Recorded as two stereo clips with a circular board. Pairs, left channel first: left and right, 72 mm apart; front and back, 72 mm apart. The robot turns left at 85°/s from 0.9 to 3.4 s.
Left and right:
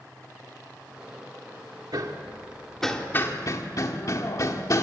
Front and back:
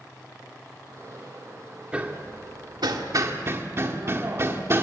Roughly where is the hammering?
Right.